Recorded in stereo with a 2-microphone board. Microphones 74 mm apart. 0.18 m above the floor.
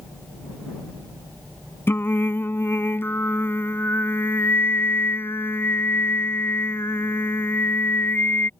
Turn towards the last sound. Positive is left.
turn(degrees=30)  # may be behind; listen again after turning